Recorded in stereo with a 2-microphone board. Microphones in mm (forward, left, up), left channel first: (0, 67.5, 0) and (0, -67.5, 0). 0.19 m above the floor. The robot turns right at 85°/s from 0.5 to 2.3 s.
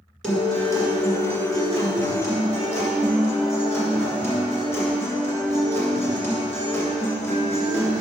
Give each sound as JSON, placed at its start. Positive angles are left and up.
{"t": 0.2, "sound": "a guitar", "azimuth_deg": 5, "distance_m": 2.0}